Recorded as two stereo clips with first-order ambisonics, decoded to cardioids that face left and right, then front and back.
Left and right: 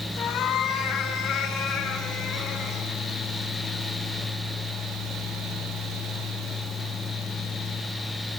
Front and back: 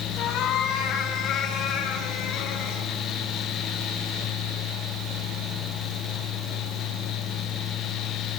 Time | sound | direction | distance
0.2 | a cat meowing | 40° left | 2.5 m